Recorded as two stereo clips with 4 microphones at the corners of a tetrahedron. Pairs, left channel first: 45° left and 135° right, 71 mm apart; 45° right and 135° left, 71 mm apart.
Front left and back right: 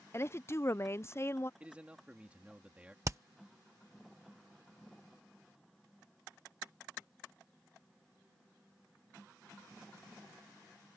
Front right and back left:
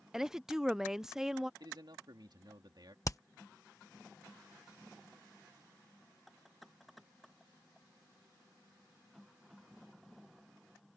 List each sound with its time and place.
0.1 s a woman speaking: 55° left
1.6 s a man speaking: 150° left
3.0 s hammering: 90° right